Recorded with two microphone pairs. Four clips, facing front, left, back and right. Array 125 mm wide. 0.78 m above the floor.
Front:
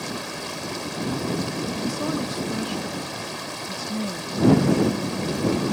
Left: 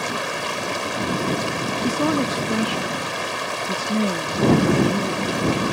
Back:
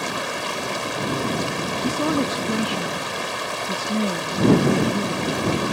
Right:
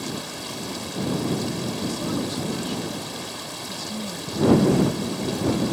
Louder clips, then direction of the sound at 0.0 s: Left 7 dB, back 5 dB; 135° left.